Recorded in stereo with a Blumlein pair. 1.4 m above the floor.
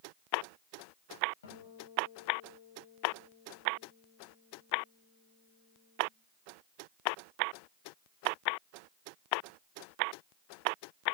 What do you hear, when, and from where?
1.4 s a guitar: 60° left, 9.5 m